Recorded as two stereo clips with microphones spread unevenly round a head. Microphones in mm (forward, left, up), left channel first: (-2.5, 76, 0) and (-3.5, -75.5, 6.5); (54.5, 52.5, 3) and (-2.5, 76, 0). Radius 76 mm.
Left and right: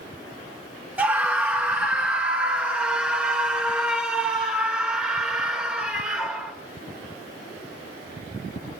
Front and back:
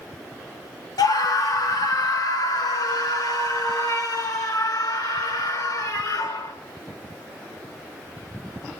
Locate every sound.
1.0 s a scream: 10° right, 2.5 m; by 6.5 s 5° right, 5.5 m